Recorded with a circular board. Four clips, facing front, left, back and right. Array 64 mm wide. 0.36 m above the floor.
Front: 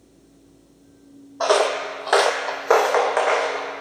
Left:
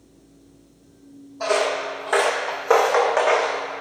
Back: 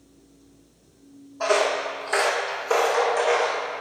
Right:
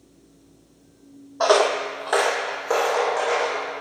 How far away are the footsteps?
About 0.8 m.